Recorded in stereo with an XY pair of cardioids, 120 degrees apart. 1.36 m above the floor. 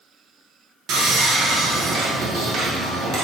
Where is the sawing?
70° right, 0.7 m.